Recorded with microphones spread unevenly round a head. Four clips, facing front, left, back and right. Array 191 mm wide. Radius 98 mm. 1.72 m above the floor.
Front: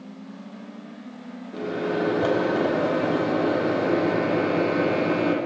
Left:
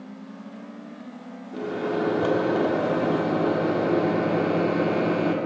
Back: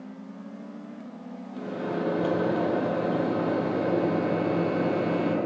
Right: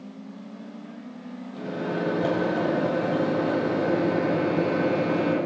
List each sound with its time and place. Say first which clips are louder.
1.5 s a microwave: left 3 dB, front 5 dB; 40° left, 5 m